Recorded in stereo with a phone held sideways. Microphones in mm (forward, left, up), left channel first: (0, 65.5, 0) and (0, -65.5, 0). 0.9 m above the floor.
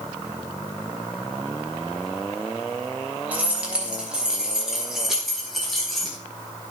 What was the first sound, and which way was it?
Keys jangling, 10° right (ahead or behind).